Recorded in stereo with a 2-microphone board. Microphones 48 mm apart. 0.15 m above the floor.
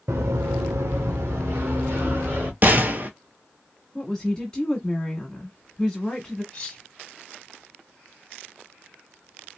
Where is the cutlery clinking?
15° left (ahead or behind), 1.3 m.